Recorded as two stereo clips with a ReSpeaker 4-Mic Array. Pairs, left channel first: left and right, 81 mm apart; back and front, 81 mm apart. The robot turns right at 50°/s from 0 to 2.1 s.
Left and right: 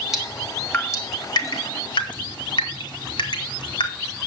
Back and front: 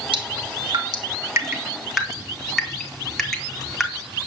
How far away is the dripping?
About 2.5 m.